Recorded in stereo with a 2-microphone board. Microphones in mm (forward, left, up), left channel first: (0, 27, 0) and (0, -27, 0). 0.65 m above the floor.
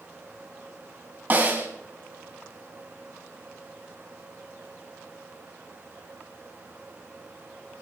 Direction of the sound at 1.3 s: 30° right (ahead or behind).